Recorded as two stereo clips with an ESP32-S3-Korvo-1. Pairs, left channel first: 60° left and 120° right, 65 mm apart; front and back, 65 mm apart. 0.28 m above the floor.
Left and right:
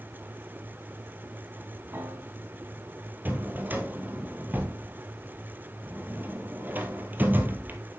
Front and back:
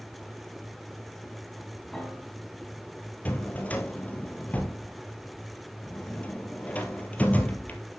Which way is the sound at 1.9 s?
85° right.